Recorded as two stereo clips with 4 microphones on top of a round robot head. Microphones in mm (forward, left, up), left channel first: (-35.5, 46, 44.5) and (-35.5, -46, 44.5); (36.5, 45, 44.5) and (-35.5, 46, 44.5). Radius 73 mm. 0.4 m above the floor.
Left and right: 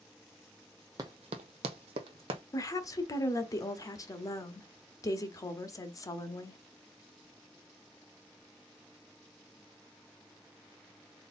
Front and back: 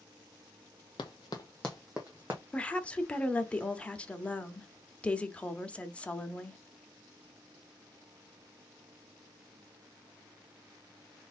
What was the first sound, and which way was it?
Running footsteps, 30° right.